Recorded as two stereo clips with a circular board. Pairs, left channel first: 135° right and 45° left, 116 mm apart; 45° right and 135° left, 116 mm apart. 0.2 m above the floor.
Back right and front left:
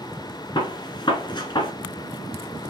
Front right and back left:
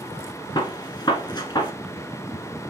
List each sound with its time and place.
0.6 s a gunshot: 90° right, 1.6 m